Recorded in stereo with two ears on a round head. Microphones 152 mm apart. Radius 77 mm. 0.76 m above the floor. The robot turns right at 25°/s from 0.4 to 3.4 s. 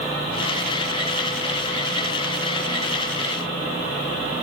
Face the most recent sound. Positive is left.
No sound to turn to.